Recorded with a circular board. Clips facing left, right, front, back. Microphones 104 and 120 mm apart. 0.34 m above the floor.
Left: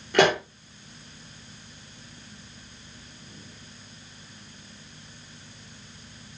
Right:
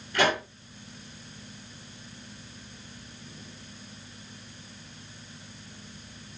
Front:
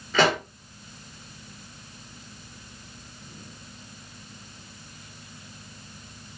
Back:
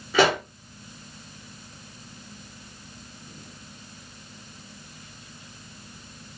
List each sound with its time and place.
0.1 s a pop: 100° left, 2.5 m